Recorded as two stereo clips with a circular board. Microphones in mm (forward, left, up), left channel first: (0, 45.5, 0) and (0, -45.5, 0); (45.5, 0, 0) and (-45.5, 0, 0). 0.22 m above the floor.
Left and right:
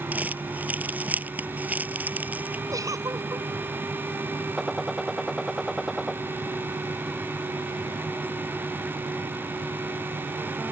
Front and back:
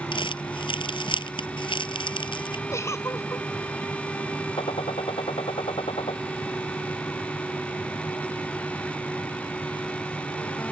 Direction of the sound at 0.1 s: 20° right.